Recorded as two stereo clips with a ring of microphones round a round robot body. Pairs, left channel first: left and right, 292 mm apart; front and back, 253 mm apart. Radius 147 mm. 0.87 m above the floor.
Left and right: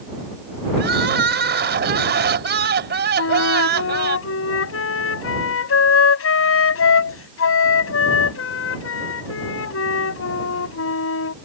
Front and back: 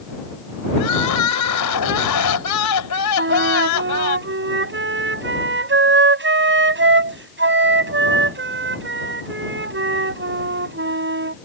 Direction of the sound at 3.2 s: 135° left.